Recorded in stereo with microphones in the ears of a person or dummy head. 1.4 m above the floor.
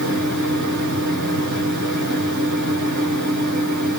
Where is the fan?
55° right (ahead or behind), 1.7 m.